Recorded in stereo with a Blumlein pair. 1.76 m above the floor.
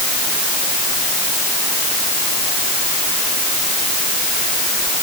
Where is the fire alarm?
I don't hear a fire alarm.